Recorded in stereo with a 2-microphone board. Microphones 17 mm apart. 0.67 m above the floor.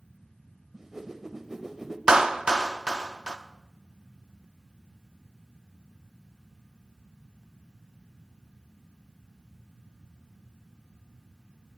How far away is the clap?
About 0.6 m.